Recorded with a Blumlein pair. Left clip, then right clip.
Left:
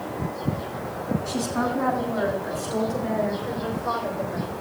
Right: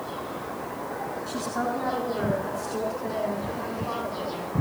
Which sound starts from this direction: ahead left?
A woman speaking, at 1.3 s.